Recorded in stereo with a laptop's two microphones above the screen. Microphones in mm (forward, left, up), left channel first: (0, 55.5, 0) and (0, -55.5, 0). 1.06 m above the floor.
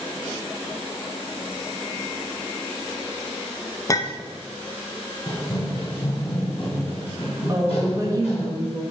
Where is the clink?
30° left (ahead or behind), 0.7 m.